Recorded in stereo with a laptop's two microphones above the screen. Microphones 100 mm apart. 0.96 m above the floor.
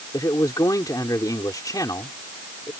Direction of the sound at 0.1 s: 40° left (ahead or behind).